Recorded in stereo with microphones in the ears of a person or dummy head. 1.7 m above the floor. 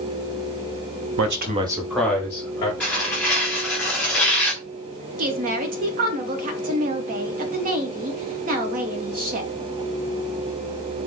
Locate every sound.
1.2 s a man speaking: 75° right (ahead or behind), 0.7 m; by 2.7 s 20° left (ahead or behind), 2 m
2.8 s tearing paper: 10° left (ahead or behind), 1.0 m
5.2 s a woman speaking: 40° right (ahead or behind), 1.0 m